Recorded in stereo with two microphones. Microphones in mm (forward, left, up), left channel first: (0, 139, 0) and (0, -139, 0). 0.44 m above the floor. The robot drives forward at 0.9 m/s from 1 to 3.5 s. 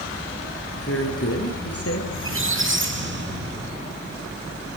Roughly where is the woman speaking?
Left.